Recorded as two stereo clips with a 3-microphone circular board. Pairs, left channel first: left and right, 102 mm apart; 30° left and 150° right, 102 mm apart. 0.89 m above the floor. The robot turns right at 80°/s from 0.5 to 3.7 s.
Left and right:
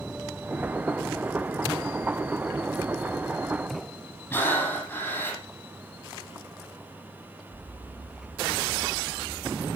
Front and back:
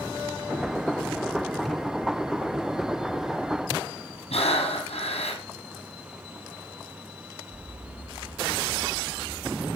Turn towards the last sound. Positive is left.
turn(degrees=20)